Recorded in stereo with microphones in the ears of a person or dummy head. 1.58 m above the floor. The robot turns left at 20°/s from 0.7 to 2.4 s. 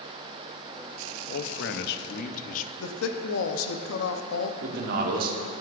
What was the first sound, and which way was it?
A man speaking, 65° left (ahead or behind).